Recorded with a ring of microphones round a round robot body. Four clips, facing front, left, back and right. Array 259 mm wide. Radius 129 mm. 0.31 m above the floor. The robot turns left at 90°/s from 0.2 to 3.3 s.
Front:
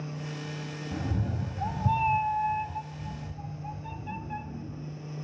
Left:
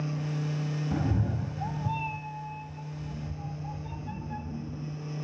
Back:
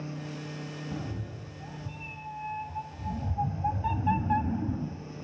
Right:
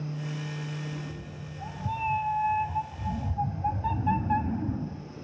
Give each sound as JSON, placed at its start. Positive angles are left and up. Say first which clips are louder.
{"t": 0.9, "sound": "a cat meowing", "louder": "left 9 dB, front 5 dB", "azimuth_deg": 85, "distance_m": 0.6}